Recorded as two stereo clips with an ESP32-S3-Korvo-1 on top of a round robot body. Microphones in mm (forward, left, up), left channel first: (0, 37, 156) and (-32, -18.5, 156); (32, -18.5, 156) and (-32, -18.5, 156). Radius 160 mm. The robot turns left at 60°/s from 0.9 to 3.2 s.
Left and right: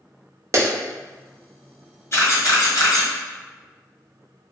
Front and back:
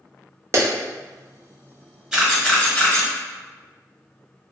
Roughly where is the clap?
Behind right.